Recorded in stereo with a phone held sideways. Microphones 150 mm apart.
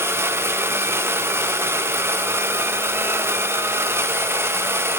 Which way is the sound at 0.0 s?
15° right (ahead or behind).